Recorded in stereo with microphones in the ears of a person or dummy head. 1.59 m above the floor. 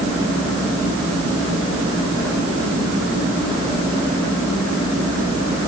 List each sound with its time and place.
Only background noise.